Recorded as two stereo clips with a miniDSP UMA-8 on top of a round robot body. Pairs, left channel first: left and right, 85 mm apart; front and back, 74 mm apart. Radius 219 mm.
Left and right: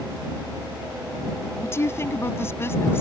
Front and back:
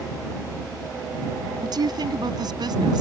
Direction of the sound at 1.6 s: 150° left.